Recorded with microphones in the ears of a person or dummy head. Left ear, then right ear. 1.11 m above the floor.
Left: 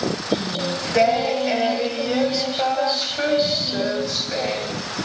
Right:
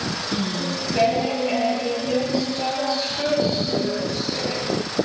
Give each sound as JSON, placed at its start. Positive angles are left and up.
{"t": 0.3, "sound": "singing", "side_deg": 60, "distance_m": 1.8}